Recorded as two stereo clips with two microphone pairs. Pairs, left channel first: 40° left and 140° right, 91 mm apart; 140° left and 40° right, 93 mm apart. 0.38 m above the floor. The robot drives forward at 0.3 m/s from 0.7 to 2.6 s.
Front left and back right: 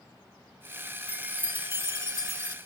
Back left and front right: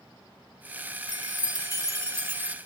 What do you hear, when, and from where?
1.1 s a chime: 70° right, 0.7 m; by 2.5 s 105° right, 0.7 m